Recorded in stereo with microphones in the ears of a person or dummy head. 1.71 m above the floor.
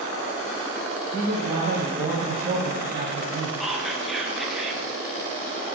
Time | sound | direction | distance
1.1 | a man speaking | 40° right (ahead or behind) | 1.1 m
3.6 | whispering | centre (ahead or behind) | 1.4 m